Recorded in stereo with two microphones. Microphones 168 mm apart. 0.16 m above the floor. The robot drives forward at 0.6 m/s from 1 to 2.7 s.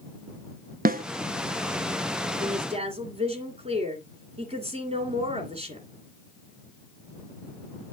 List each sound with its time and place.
0.8 s a snare drum: 60° right (ahead or behind), 0.6 m
2.4 s a woman speaking: 40° right (ahead or behind), 2 m; by 5.9 s 35° right (ahead or behind), 2 m